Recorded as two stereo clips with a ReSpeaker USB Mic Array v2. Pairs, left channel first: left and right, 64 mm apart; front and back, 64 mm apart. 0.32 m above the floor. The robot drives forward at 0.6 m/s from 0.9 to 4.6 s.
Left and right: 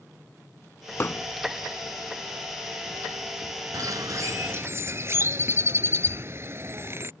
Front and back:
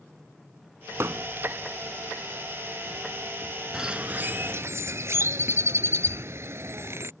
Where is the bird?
100° right; by 7.1 s 140° right.